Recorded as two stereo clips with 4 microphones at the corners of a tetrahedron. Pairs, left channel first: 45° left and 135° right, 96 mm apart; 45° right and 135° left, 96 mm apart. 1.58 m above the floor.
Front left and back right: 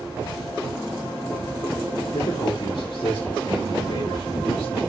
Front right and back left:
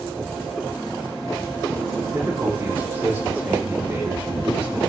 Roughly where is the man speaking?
Left.